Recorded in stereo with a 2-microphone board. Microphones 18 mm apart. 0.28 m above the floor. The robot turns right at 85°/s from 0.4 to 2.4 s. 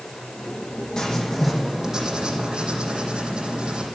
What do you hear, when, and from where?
1.0 s writing: 130° left, 8.5 m; by 3.9 s 110° right, 8.5 m